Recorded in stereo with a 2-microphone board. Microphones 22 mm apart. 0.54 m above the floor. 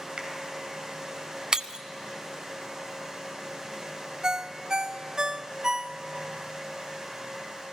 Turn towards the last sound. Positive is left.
turn(degrees=-35)  # may be behind; listen again after turning